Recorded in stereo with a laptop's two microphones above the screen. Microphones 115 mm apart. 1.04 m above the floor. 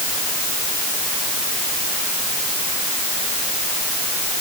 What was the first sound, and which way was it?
Only background noise.